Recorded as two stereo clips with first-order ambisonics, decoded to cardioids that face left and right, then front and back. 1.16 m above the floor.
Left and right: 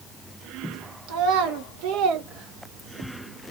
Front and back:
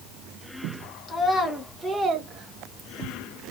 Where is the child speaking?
75° right, 0.9 m; by 3.2 s 170° right, 0.7 m.